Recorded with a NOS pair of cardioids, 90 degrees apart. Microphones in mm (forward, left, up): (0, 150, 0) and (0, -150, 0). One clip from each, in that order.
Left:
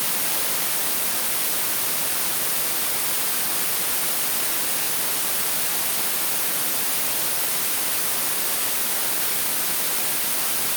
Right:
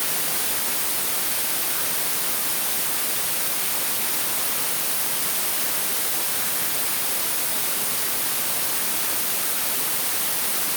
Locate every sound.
Only background noise.